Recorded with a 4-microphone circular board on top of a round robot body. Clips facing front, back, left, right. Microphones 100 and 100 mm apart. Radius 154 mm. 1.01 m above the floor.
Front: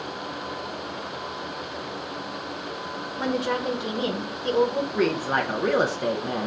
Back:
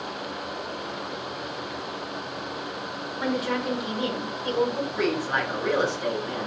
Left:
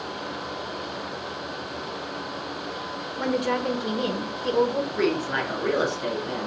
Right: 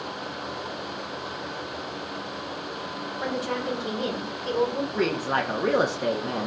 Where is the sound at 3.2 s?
60° left, 0.8 m.